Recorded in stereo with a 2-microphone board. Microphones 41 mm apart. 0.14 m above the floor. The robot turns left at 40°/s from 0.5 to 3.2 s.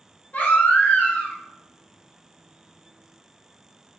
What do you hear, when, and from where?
0.3 s a baby crying: 75° left, 1.1 m; by 1.4 s 40° left, 1.1 m